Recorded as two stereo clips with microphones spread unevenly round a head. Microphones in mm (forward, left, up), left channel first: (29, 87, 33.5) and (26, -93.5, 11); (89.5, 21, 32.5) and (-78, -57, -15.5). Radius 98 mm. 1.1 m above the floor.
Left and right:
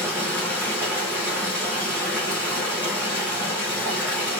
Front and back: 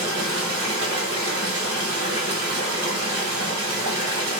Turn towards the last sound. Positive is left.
turn(degrees=-175)